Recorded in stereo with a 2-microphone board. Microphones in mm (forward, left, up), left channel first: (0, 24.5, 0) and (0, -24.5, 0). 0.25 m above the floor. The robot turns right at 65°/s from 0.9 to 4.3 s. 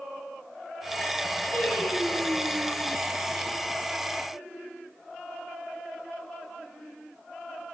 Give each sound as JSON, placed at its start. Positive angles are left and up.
{"t": 1.5, "sound": "singing", "azimuth_deg": 155, "distance_m": 4.0}